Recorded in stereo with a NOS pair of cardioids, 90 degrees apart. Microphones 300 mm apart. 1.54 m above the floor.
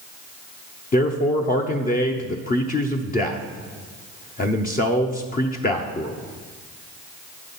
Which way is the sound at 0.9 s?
25° left.